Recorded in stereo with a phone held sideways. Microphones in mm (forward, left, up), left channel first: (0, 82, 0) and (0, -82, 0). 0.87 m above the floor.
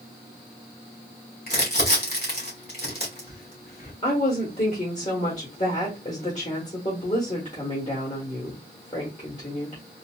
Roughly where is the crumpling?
Left.